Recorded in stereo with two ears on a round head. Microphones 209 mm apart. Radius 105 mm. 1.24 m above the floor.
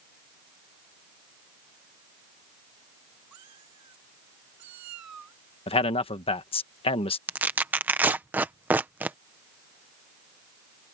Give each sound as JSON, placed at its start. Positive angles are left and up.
{"t": 3.3, "sound": "a cat meowing", "side_deg": -85}
{"t": 5.7, "sound": "a man speaking", "side_deg": 25}
{"t": 7.3, "sound": "tearing paper", "side_deg": -5}